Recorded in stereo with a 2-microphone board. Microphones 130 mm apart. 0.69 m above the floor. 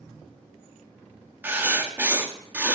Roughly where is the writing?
Centre.